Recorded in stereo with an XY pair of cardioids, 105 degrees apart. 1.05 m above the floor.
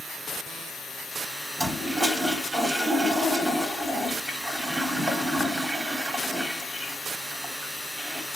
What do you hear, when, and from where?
1.6 s a toilet flushing: 5° right, 3.5 m